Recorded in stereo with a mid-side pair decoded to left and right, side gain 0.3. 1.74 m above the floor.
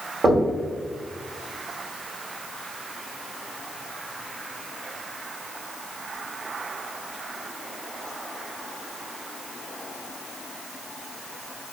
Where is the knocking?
50° right, 1.7 m.